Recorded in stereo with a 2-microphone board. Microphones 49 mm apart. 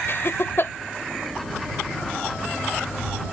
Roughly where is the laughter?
Left.